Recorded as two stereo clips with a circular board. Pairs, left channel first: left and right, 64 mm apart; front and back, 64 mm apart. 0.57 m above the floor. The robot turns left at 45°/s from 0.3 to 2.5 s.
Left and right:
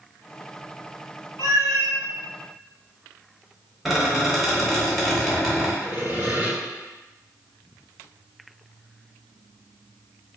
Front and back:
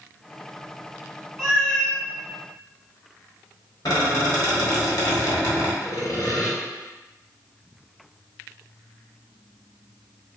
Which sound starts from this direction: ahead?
A squeak, at 3.9 s.